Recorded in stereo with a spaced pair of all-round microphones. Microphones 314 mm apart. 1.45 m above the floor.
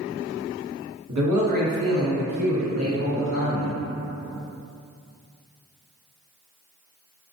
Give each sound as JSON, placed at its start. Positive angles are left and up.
{"t": 1.1, "sound": "a man speaking", "side_deg": -55, "distance_m": 0.7}